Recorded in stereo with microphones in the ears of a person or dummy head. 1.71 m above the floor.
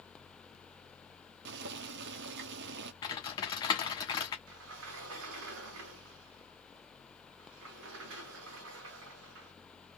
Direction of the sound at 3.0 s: 15° left (ahead or behind).